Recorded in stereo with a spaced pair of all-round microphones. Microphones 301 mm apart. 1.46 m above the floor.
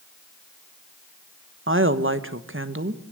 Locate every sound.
1.7 s a woman speaking: 40° right (ahead or behind), 1.3 m